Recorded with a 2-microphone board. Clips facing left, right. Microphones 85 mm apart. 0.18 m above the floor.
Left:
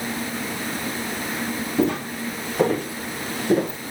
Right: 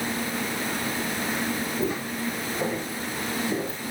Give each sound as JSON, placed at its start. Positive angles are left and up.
{"t": 1.8, "sound": "footsteps", "side_deg": 75, "distance_m": 3.5}